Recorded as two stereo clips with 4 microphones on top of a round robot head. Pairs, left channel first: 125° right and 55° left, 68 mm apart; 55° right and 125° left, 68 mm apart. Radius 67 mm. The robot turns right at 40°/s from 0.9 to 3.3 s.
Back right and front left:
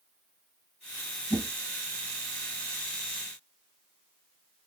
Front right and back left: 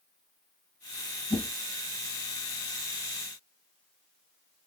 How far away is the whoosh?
About 1.8 m.